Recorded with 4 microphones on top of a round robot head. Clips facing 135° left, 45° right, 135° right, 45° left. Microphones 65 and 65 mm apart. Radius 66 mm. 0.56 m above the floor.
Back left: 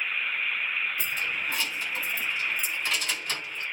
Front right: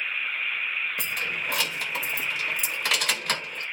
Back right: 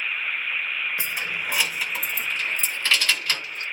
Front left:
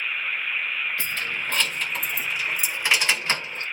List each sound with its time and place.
1.0 s keys jangling: 65° right, 2 m; by 3.6 s 15° right, 1.8 m